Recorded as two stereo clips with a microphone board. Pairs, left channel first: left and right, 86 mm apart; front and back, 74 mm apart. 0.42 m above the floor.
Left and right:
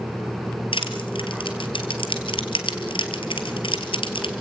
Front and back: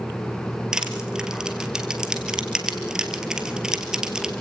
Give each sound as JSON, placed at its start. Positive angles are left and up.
{"t": 0.7, "sound": "crushing", "azimuth_deg": 100, "distance_m": 2.5}